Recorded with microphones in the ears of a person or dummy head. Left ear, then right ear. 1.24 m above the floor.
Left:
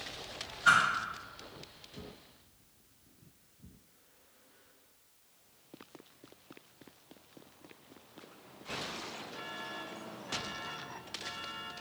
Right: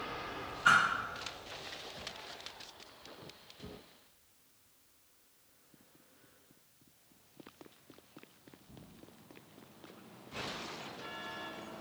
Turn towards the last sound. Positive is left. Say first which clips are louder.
# left 1 dB
turn(degrees=-30)  # may be behind; listen again after turning